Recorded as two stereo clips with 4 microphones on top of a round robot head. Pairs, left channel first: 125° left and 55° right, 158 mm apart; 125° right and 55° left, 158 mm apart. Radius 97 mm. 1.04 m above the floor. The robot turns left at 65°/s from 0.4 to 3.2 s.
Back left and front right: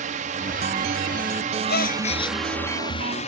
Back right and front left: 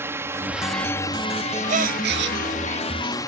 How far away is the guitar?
I don't hear a guitar.